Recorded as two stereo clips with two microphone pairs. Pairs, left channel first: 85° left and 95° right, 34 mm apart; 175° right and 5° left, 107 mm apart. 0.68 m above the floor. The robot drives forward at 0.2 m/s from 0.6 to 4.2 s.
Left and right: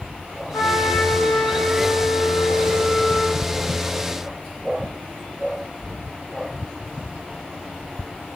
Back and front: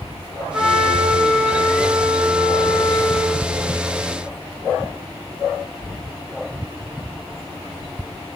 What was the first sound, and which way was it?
A trumpet, 95° left.